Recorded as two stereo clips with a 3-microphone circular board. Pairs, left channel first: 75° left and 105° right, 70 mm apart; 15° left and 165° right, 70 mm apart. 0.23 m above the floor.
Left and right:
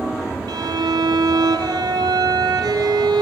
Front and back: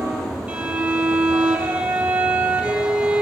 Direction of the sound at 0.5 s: 95° right.